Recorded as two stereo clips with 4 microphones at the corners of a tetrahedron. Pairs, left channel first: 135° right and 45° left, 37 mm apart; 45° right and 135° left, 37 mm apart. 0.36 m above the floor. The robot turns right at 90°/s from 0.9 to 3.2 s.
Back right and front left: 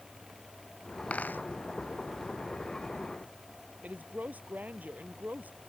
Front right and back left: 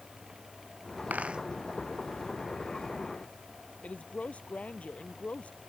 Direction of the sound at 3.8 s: 5° left.